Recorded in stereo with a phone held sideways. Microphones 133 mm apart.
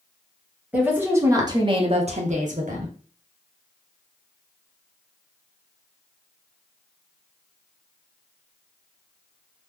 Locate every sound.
0.7 s a woman speaking: 10° right (ahead or behind), 1.3 m; by 2.9 s 85° right, 1.0 m